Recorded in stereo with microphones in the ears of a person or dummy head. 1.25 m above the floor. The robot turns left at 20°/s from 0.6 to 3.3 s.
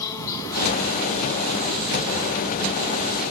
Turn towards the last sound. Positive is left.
turn(degrees=-25)